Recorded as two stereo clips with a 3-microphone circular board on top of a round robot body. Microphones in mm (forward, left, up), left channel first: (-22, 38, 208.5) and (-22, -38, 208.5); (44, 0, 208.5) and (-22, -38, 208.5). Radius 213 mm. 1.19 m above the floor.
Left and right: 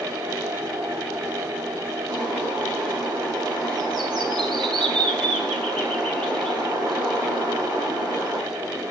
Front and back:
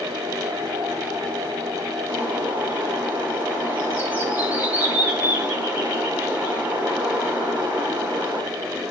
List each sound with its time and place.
2.1 s a bird: 80° right, 8.5 m